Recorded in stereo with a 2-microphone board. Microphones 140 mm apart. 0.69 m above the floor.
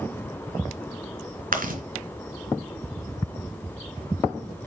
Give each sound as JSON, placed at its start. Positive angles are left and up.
{"t": 1.5, "sound": "chewing", "side_deg": -80, "distance_m": 2.5}